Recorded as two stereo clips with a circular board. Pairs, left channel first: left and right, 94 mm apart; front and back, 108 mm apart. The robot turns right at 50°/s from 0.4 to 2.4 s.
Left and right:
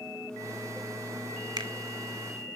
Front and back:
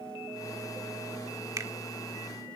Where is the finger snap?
125° right, 1.8 m; by 1.7 s 115° right, 1.8 m.